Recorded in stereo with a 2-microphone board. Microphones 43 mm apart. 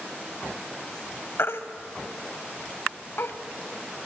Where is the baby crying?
65° left (ahead or behind), 1.1 m.